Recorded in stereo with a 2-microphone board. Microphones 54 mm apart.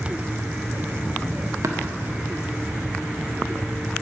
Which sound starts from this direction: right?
Tapping, at 1.6 s.